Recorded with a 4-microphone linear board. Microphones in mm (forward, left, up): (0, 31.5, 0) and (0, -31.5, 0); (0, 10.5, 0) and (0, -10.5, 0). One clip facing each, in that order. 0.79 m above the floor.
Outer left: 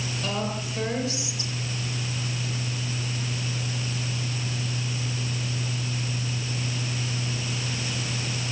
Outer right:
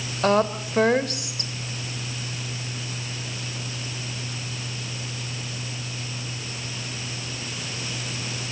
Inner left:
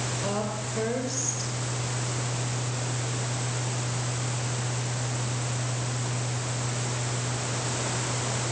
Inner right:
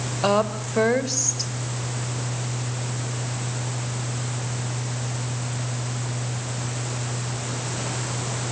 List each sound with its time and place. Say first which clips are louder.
0.2 s a woman speaking: outer right 11 dB, inner right 13 dB; 55° right (ahead or behind), 2.5 m